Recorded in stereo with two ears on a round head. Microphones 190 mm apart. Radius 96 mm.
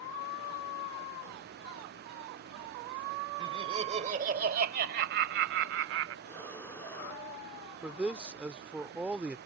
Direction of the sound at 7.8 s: 5° right (ahead or behind).